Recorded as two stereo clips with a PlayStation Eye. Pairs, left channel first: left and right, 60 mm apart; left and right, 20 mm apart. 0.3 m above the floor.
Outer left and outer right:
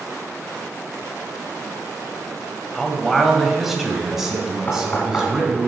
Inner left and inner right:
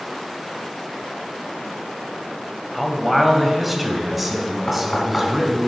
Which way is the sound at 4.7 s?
30° left (ahead or behind).